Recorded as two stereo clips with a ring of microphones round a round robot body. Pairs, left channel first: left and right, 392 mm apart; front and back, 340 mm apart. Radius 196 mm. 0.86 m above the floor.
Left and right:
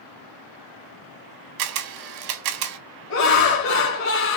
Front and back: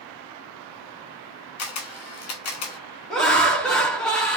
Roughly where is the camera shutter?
Ahead right.